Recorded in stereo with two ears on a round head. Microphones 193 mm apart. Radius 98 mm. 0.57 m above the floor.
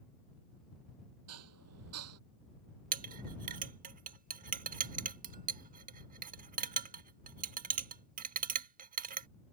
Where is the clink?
40° right (ahead or behind).